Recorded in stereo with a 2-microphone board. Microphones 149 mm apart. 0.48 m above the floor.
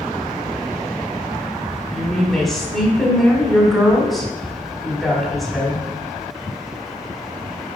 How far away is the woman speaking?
About 1.8 m.